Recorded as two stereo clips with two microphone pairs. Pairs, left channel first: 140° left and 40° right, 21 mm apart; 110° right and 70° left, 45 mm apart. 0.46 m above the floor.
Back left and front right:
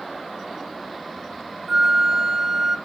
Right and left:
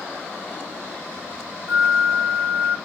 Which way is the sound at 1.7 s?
35° left.